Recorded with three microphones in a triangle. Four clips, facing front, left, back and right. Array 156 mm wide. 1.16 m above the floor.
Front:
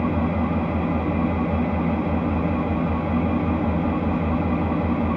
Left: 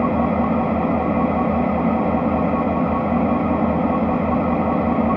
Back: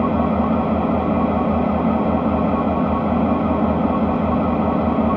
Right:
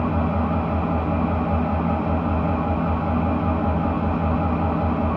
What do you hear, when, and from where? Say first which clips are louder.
0.0 s an engine running: left 5 dB, back 5 dB; 140° left, 1.3 m